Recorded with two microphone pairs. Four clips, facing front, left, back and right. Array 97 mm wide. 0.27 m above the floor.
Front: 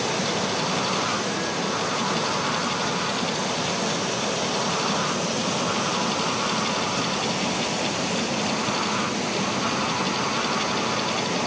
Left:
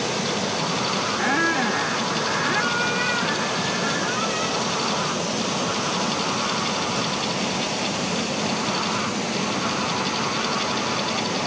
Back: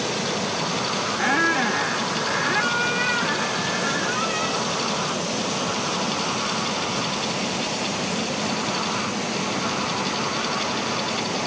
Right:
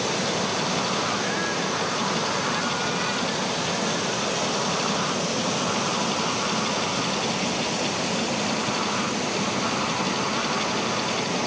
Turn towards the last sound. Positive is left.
turn(degrees=150)